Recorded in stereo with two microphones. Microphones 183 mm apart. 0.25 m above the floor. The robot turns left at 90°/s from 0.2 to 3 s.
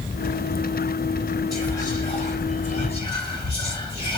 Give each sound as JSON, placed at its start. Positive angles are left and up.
{"t": 1.5, "sound": "whispering", "azimuth_deg": 180, "distance_m": 1.4}